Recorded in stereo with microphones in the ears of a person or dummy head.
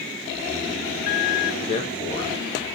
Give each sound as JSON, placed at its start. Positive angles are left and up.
{"t": 1.6, "sound": "a man speaking", "side_deg": 30, "distance_m": 1.4}